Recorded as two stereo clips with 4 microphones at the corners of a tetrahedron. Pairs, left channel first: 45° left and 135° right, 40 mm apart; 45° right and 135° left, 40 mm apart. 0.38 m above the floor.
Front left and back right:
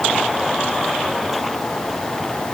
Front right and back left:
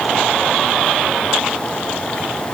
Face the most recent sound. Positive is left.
No sound to turn to.